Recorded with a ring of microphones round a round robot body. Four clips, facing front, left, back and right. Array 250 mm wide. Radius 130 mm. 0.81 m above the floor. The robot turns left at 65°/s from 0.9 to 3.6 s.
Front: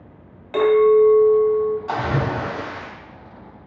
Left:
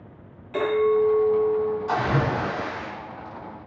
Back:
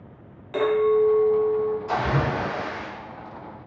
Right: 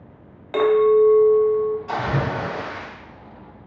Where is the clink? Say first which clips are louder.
Right 5 dB, front 6 dB; 65° right, 0.9 m; by 1.8 s 125° right, 0.9 m.